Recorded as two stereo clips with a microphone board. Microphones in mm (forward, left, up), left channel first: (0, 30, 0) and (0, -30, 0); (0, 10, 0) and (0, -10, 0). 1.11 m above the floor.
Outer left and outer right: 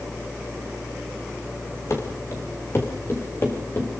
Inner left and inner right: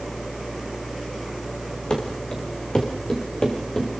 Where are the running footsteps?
50° left (ahead or behind), 5.5 m; by 4.0 s 35° left (ahead or behind), 5.5 m.